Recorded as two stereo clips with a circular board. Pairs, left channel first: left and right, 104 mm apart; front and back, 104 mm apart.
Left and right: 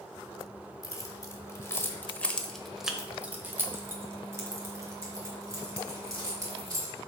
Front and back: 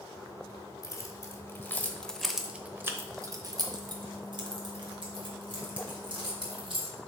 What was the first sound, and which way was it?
Keys jangling, 45° left.